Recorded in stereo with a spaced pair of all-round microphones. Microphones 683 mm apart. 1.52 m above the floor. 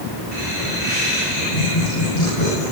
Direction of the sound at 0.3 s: 65° left (ahead or behind).